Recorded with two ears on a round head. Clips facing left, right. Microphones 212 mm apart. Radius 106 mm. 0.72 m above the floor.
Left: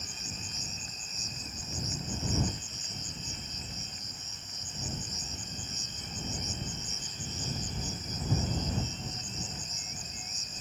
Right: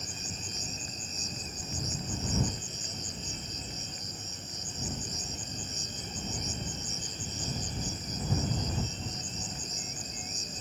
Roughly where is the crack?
I don't hear a crack.